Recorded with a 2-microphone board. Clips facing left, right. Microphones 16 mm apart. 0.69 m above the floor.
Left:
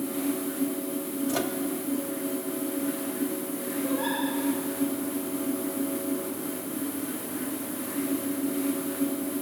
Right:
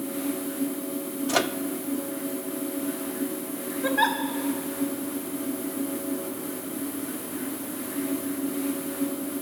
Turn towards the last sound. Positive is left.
turn(degrees=-75)  # may be behind; listen again after turning